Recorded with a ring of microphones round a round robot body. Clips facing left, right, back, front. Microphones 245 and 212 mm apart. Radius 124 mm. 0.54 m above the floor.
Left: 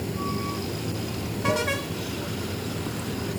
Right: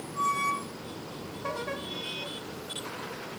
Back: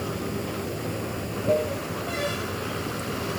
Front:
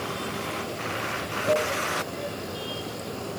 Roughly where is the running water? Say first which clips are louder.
Left 9 dB, back 3 dB; left.